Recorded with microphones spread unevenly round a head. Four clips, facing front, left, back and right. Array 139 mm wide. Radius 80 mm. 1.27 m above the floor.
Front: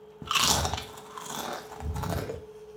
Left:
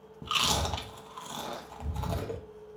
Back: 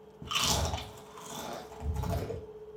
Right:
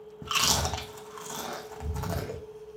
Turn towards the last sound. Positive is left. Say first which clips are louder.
# right 1 dB, front 5 dB
turn(degrees=5)